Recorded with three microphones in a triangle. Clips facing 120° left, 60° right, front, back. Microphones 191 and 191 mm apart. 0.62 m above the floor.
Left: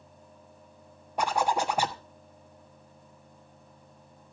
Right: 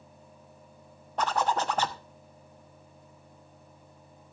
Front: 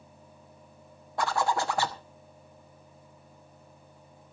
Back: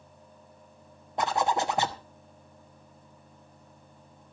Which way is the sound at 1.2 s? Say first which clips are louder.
Left 1 dB, back 1 dB; 175° left.